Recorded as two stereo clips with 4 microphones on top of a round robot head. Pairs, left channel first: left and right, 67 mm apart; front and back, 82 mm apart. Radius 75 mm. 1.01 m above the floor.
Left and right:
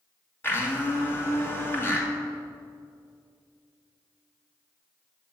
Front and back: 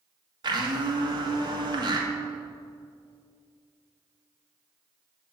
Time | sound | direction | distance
0.4 | a blender | 145° left | 2 m